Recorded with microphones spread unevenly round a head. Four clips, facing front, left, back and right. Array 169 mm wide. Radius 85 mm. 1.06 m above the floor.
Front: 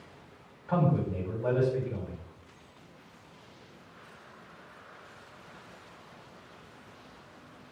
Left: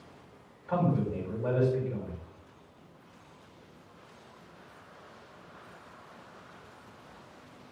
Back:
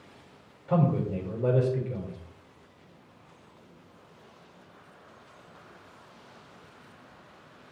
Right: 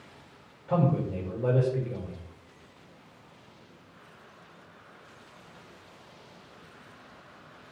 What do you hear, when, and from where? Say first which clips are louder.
0.7 s a man speaking: right 2 dB, back 2 dB; 160° right, 6 m